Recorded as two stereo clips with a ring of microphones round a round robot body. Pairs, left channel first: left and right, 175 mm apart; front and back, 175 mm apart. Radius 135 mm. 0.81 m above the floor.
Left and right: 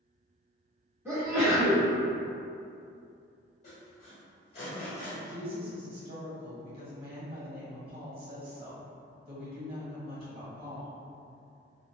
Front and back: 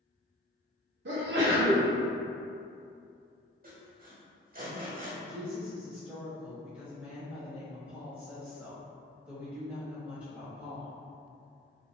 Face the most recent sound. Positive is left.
turn(degrees=-105)